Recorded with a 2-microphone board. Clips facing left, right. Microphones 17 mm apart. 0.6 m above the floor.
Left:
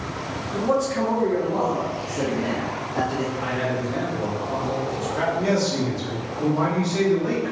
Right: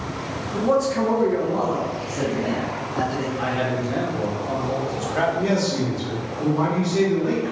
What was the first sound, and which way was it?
A man speaking, centre (ahead or behind).